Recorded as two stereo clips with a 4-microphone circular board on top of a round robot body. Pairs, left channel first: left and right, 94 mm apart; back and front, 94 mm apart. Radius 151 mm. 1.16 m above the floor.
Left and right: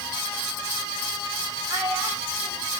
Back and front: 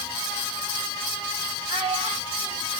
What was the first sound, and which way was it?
A child speaking, 20° right.